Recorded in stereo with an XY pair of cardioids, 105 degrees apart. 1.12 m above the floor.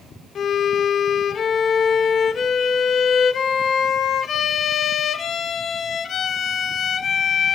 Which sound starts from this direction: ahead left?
A violin, at 0.3 s.